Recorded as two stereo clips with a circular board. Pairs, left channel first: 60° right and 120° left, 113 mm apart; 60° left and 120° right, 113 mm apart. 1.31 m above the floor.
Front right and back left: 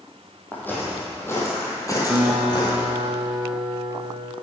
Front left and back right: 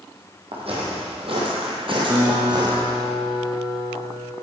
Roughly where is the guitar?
Behind.